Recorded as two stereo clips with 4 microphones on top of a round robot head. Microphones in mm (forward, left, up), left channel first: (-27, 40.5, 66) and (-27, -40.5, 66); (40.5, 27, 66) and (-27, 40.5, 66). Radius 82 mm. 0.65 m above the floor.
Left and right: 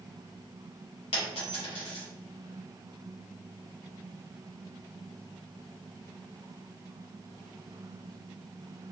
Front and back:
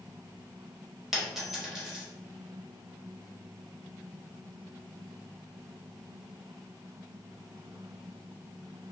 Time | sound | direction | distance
1.1 | a dropped coin | 80° left | 0.9 m